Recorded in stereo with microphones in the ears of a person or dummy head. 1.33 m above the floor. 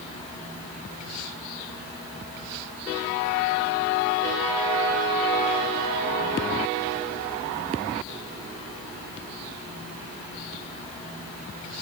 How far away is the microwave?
No microwave in this recording.